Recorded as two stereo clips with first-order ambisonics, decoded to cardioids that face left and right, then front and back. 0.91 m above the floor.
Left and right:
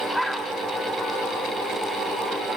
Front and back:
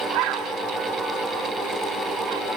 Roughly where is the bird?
Behind.